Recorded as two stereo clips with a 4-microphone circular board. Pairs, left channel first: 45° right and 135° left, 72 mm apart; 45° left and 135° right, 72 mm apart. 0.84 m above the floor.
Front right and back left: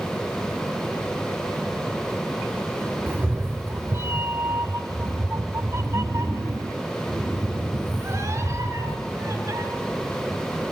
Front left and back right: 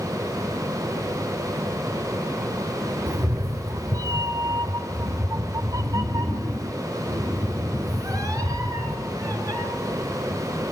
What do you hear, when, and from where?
3.1 s a cat meowing: 170° right, 0.9 m; by 9.6 s 175° right, 4.5 m